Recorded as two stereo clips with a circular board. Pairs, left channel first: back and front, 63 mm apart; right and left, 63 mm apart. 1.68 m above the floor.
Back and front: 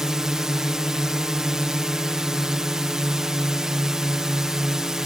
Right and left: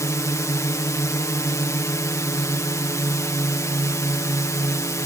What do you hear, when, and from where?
0.0 s a drone: 80° right